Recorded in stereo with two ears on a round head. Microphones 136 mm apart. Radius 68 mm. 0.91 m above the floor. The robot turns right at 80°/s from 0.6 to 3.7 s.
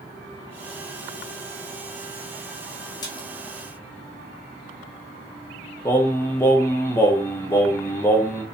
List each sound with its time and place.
3.0 s a splash: 25° left (ahead or behind), 0.8 m; by 3.3 s 40° left (ahead or behind), 0.8 m
5.8 s singing: 15° left (ahead or behind), 0.5 m